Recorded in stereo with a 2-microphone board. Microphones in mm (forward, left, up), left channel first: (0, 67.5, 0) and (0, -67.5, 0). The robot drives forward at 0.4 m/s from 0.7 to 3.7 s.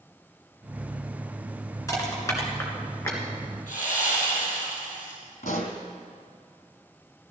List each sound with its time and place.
1.9 s crushing: 25° left (ahead or behind), 2 m; by 3.2 s 20° left (ahead or behind), 2.5 m
3.7 s sawing: 80° left, 4.5 m
5.4 s a pop: 80° left, 1.7 m